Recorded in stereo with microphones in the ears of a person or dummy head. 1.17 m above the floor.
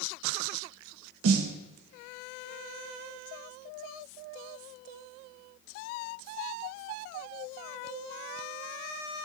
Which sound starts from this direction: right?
A snare drum, at 1.2 s.